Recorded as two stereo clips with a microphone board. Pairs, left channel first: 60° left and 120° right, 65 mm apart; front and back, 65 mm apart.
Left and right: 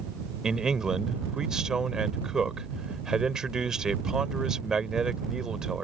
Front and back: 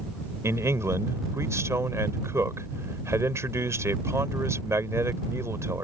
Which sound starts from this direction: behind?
A man speaking, at 0.4 s.